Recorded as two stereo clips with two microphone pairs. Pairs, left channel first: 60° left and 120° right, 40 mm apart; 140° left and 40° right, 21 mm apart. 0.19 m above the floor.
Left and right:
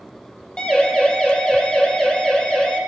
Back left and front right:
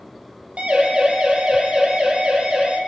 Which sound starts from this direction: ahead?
A siren, at 0.6 s.